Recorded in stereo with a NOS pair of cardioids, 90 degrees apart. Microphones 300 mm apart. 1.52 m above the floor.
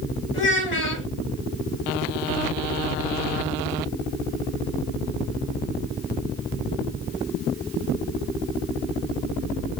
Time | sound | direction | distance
0.3 | a child speaking | 40° left | 2 m